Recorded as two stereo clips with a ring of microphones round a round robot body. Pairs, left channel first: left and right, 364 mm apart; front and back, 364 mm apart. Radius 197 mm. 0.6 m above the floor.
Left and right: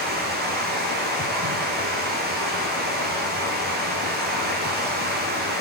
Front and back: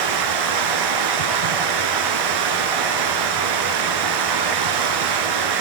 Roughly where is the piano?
I don't hear a piano.